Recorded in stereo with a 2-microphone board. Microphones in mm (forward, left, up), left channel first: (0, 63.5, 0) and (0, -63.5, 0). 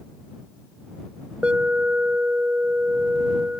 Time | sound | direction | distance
1.4 | an alarm | 10° right (ahead or behind) | ?